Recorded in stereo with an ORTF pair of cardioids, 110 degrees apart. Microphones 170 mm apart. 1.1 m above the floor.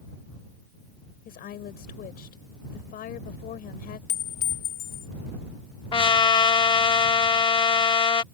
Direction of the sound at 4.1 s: 60° left.